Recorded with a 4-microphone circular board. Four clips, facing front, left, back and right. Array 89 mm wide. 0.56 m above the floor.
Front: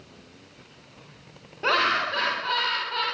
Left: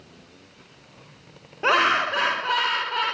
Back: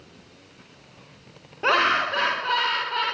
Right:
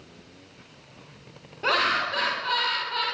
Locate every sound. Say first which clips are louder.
1.6 s laughter: left 4 dB, back 3 dB; 120° left, 0.8 m